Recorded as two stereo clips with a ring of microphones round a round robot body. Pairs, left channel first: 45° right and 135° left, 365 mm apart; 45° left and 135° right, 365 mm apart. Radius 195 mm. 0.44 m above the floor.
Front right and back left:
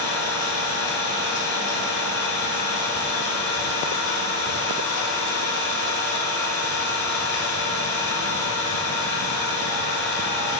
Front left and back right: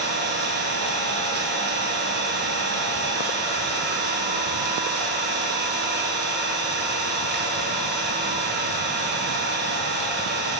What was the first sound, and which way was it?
An engine running, 75° right.